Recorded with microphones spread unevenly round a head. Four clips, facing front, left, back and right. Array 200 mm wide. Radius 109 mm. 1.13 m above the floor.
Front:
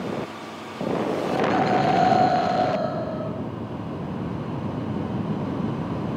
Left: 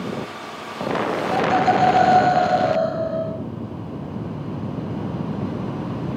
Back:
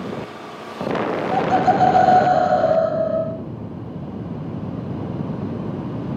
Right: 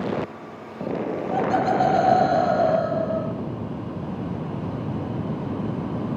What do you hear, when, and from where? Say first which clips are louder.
1.3 s laughter: left 3 dB, back 5 dB; 175° left, 3 m